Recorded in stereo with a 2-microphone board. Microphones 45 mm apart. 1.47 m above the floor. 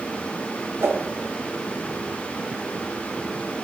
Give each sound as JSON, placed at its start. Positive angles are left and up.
{"t": 0.8, "sound": "a whoosh", "side_deg": -60, "distance_m": 1.0}